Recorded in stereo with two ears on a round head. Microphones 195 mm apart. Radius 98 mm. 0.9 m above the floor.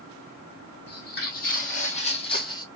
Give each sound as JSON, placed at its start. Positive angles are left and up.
{"t": 0.9, "sound": "footsteps", "side_deg": 50, "distance_m": 2.0}